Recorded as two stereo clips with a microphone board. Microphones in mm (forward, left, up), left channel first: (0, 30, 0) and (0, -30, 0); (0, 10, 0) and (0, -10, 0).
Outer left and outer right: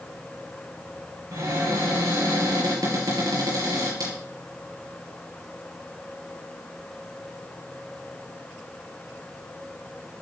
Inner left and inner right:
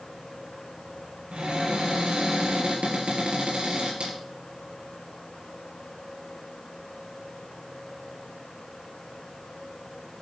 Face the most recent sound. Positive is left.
turn(degrees=-80)